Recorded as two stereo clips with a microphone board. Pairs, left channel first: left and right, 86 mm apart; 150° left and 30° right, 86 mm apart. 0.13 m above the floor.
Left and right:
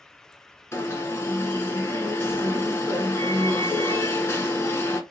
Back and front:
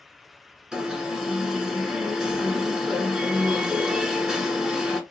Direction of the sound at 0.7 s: 50° left.